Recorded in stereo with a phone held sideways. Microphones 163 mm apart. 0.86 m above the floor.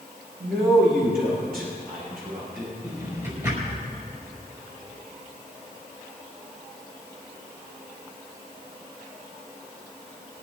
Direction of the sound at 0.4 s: 65° right (ahead or behind).